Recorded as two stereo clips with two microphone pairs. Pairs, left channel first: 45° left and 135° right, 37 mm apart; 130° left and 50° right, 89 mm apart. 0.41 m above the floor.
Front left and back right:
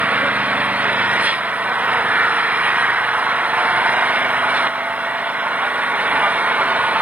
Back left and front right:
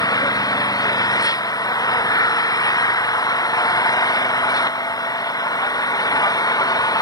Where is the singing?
No singing in this recording.